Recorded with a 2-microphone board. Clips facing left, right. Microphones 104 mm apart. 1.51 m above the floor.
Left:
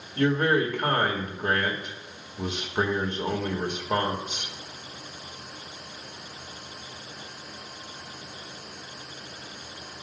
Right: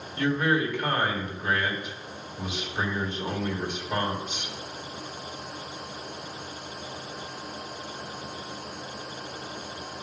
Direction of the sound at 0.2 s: 50° left (ahead or behind).